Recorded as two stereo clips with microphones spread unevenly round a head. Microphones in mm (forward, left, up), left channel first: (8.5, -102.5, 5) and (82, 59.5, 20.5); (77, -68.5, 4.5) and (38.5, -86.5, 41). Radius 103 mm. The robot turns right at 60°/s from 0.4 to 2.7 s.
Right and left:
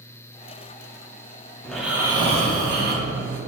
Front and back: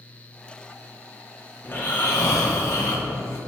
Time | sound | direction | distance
1.6 | snoring | 30° right | 1.9 m